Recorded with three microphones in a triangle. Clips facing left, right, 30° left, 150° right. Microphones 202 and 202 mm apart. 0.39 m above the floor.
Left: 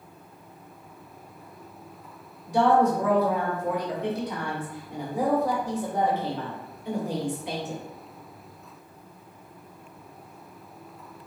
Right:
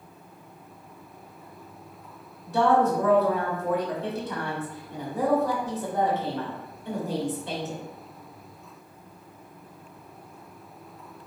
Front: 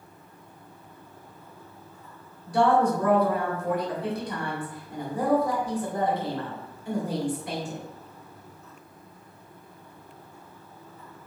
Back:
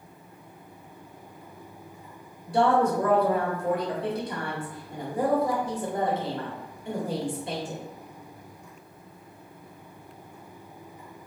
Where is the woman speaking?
160° left, 1.2 m.